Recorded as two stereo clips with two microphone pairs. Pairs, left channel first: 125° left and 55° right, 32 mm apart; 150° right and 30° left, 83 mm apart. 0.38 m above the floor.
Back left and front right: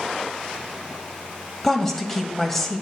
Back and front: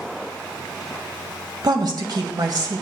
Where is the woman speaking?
40° left, 1.5 m.